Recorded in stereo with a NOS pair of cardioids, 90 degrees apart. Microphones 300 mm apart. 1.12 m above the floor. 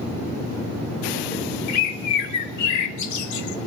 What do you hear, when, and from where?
1.7 s a bird: 70° left, 0.7 m